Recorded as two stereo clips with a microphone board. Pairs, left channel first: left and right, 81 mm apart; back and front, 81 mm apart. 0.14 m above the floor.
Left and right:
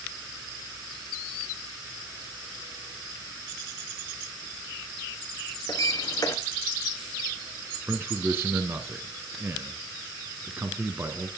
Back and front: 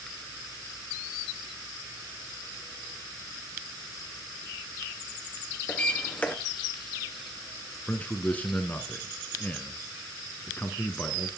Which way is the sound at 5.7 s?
110° left.